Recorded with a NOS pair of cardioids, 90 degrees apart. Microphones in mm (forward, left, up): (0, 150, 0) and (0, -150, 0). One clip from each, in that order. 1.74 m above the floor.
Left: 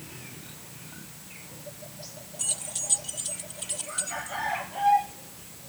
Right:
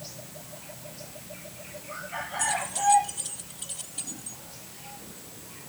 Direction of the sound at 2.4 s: 10° left.